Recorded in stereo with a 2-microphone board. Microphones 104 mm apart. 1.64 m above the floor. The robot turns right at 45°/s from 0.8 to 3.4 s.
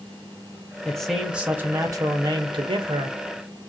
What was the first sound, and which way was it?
A man speaking, 170° left.